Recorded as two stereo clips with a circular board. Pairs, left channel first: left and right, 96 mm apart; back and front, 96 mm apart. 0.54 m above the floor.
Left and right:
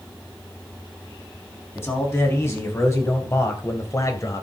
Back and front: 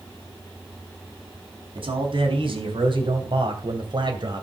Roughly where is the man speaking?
Ahead left.